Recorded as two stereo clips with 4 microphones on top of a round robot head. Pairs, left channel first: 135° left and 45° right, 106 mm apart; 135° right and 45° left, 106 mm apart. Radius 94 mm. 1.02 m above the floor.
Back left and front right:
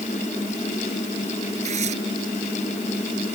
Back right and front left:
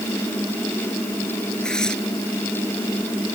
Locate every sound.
1.6 s tearing paper: 55° right